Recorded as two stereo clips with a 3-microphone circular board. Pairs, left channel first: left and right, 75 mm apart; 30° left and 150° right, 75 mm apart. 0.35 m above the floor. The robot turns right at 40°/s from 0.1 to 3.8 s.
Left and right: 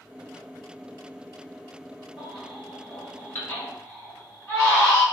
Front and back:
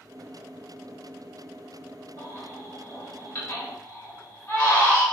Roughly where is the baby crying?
Ahead.